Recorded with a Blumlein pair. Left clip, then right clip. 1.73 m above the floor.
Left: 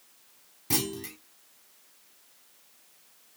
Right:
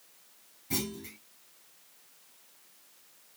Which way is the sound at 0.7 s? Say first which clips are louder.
Left 5 dB; 35° left.